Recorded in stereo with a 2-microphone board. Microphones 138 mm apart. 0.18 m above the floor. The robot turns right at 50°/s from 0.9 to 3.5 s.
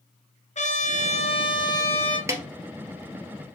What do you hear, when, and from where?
0.6 s a trumpet: 105° left, 2.5 m; by 2.2 s 170° left, 2.5 m
2.3 s a snare drum: 20° right (ahead or behind), 1.8 m; by 2.4 s 15° right (ahead or behind), 1.8 m